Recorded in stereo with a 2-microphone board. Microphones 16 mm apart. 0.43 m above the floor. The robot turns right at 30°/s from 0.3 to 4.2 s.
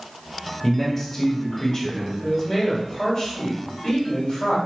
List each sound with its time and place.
0.6 s a man speaking: 5° right, 1.4 m; by 2.1 s 40° left, 1.4 m
2.2 s a man speaking: 15° left, 2 m; by 4.6 s 75° left, 2 m